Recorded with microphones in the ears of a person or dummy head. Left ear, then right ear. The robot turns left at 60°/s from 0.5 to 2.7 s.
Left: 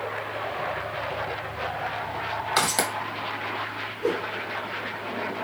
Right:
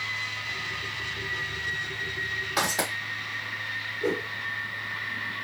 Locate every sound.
2.6 s footsteps: 60° left (ahead or behind), 2 m
4.0 s a whoosh: centre (ahead or behind), 2 m